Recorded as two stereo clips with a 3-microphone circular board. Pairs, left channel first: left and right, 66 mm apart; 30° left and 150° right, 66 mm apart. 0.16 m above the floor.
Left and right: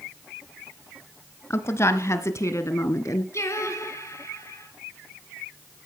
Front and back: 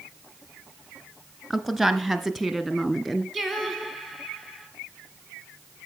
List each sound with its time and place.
1.5 s a woman speaking: 120° left, 1.7 m; by 3.2 s 115° left, 2.5 m
3.3 s singing: 115° left, 2.5 m